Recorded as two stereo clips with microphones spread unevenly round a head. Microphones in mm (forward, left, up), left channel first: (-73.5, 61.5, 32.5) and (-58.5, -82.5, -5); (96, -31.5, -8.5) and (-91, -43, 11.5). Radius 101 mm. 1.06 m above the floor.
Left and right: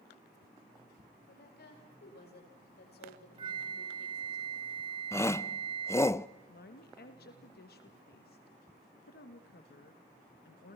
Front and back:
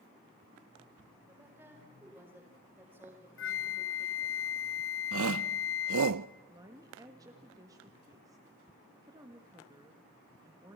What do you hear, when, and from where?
1.3 s a woman speaking: 105° left, 5 m
3.4 s a flute: 10° right, 0.9 m
5.1 s a shout: 175° left, 0.6 m
6.5 s a woman speaking: 110° left, 1.7 m